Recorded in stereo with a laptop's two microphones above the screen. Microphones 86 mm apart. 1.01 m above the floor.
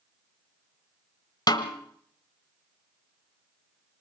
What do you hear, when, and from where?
1.5 s a snare drum: 50° left (ahead or behind), 1.2 m